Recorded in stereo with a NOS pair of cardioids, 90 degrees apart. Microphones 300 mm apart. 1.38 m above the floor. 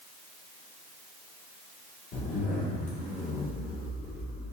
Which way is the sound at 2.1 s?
55° left.